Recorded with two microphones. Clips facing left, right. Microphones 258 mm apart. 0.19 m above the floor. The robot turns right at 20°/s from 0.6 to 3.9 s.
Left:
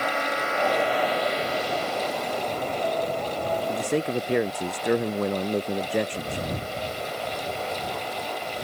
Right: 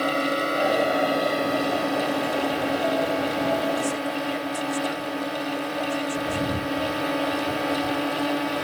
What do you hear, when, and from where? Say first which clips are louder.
0.0 s a drone: right 5 dB; 140° right; by 8.7 s 75° right
3.7 s a man speaking: left 1 dB; 75° left (ahead or behind); by 6.5 s 70° left (ahead or behind)